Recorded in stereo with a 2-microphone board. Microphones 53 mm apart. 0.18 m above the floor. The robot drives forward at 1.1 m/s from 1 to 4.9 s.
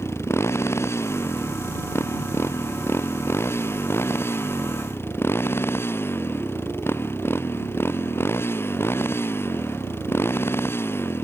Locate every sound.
0.0 s a motorcycle: 55° left (ahead or behind); by 11.2 s 50° left (ahead or behind)